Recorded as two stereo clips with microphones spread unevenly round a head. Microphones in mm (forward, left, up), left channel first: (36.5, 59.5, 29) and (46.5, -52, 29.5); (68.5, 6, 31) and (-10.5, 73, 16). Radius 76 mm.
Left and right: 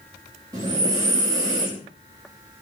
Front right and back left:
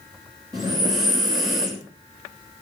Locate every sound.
0.5 s breathing: 155° right, 3 m